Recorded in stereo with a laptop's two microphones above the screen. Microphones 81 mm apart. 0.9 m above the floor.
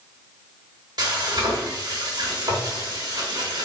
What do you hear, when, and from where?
1.0 s frying: 60° right (ahead or behind), 1.0 m